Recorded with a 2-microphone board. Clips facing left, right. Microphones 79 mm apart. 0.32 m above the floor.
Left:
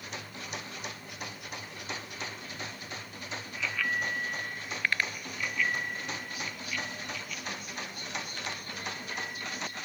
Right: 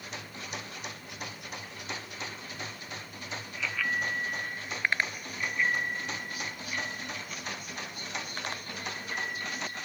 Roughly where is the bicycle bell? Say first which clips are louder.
Even; centre.